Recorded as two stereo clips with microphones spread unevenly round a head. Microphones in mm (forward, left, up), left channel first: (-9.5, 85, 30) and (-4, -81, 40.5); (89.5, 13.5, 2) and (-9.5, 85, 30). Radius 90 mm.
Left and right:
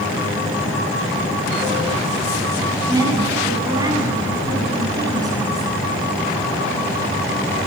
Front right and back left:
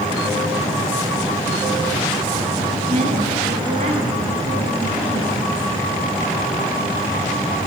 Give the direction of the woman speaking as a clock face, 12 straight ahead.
5 o'clock.